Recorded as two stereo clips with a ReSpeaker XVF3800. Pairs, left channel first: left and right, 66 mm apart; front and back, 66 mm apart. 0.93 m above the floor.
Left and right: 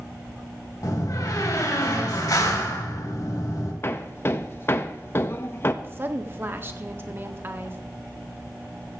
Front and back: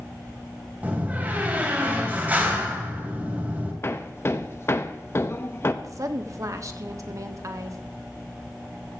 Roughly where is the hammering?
Ahead left.